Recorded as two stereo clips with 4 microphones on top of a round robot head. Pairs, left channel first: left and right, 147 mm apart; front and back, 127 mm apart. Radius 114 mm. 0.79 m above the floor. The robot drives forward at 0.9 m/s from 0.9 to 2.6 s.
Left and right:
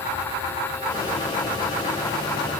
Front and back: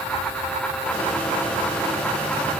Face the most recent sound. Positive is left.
No sound to turn to.